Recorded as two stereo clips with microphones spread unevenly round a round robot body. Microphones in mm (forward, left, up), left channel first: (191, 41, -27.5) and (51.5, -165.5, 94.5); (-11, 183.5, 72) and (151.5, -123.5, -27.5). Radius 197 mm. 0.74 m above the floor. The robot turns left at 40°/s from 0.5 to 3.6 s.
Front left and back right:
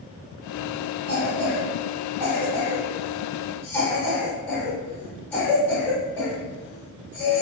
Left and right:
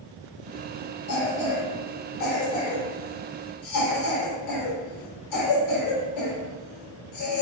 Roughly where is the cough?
Behind.